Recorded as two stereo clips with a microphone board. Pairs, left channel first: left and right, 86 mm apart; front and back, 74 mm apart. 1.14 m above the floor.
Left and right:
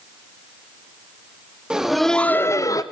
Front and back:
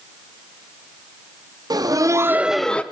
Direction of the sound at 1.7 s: 170° right.